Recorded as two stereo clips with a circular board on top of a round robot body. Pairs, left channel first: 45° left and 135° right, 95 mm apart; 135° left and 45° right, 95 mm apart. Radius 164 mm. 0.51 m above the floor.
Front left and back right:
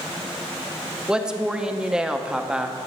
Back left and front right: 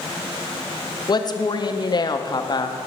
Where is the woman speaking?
145° left, 0.9 m.